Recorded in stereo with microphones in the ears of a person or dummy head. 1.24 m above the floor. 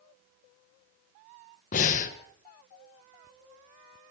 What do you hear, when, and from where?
1.7 s breathing: 40° left (ahead or behind), 1.4 m